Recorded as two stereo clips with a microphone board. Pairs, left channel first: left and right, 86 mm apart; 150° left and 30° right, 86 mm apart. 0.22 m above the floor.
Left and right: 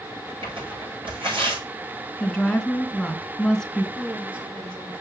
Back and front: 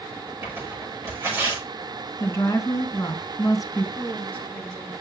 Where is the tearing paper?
90° right, 6.5 m.